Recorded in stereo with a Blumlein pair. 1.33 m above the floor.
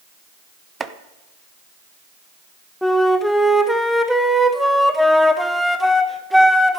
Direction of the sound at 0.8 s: 15° right.